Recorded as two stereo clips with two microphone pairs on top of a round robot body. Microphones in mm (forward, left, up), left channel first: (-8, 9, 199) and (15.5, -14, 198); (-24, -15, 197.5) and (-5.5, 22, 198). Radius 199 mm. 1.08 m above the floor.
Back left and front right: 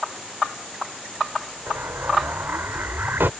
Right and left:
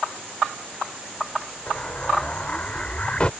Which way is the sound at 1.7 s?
50° right.